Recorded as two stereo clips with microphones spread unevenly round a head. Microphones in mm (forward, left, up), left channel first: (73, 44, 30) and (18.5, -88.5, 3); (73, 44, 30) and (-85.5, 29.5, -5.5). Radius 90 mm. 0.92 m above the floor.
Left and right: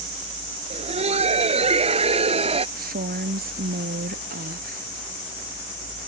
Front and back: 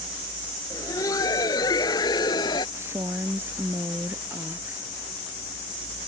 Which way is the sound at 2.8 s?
95° right.